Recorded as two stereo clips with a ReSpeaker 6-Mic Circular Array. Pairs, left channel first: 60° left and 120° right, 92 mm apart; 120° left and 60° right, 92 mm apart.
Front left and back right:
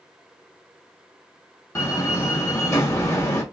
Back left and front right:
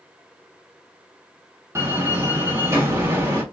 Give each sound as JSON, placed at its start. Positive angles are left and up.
{"t": 1.8, "sound": "a door slam", "azimuth_deg": 0, "distance_m": 1.2}